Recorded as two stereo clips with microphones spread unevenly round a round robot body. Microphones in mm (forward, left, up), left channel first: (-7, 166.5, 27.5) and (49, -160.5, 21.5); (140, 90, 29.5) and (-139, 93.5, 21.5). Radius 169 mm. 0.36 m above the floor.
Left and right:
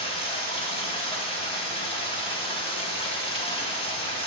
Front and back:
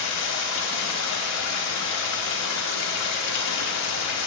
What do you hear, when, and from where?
0.0 s running water: 25° left, 1.2 m